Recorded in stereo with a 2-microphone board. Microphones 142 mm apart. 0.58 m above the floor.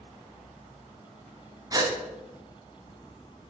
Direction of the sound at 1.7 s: 25° right (ahead or behind).